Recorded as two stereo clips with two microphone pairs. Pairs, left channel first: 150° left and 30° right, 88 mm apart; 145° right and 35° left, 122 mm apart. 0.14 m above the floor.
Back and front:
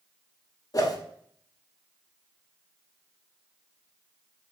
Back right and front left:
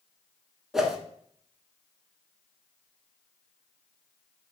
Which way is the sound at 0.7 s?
120° left.